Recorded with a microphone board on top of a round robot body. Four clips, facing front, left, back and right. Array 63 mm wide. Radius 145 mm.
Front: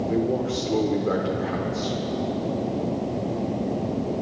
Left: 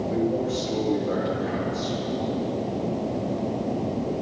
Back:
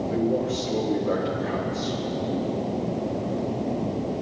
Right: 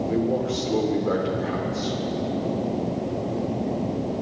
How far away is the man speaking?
About 3 m.